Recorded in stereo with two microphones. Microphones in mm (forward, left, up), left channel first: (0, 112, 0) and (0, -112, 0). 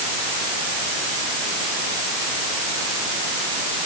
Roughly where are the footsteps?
No footsteps in this recording.